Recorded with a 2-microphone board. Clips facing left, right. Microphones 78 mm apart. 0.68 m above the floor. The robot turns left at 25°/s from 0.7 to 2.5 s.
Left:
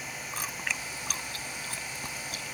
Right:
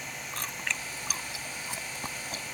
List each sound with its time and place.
0.3 s chewing: 10° left (ahead or behind); by 2.6 s 35° right (ahead or behind)